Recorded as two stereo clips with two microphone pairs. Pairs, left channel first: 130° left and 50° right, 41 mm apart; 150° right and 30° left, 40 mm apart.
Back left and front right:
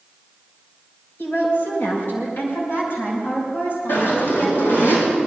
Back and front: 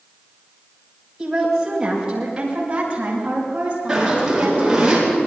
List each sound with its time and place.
1.2 s a woman speaking: 110° left, 6.5 m; by 4.9 s 85° left, 9 m
3.9 s a zipper: 110° left, 6.5 m